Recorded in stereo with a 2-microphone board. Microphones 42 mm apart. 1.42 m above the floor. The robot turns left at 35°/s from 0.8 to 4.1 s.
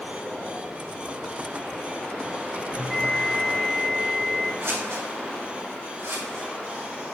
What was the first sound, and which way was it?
A bell, 10° left.